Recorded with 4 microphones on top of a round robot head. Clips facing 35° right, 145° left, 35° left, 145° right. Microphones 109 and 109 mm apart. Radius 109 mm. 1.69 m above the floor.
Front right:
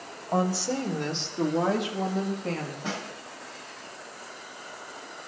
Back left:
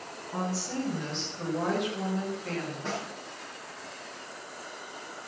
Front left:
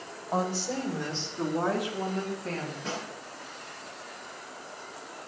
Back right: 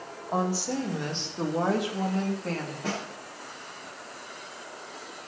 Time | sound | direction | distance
0.3 | a woman speaking | 60° right | 2.5 m
2.8 | a snare drum | 115° right | 7.5 m